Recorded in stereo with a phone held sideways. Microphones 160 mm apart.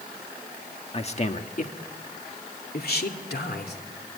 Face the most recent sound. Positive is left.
turn(degrees=80)